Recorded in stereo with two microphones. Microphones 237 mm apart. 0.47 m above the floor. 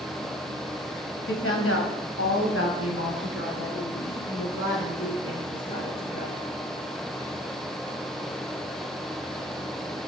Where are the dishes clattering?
No dishes clattering in this recording.